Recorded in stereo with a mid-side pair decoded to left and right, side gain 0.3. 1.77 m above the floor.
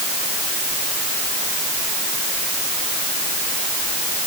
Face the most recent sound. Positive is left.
No sound to turn to.